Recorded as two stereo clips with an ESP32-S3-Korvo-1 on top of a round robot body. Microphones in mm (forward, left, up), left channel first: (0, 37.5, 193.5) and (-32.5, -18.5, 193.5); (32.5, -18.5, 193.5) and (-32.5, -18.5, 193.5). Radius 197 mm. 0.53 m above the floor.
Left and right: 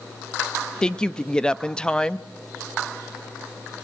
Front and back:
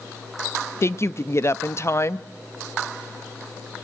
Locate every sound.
0.8 s a woman speaking: 10° right, 0.9 m